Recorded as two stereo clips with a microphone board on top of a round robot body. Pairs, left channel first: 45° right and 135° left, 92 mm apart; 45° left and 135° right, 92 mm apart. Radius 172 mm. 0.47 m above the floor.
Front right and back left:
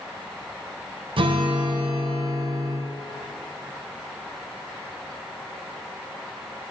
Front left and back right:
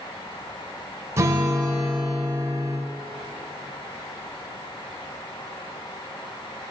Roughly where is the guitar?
Behind.